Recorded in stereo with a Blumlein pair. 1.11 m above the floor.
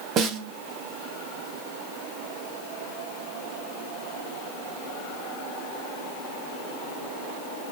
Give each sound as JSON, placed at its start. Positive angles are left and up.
{"t": 0.2, "sound": "a snare drum", "azimuth_deg": -30, "distance_m": 0.9}